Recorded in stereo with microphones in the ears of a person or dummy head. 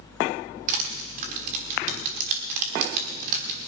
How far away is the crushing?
About 1.3 m.